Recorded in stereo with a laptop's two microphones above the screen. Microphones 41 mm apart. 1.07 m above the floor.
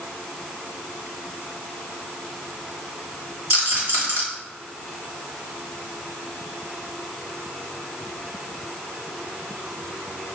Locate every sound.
3.5 s a rattle: 60° right (ahead or behind), 1.4 m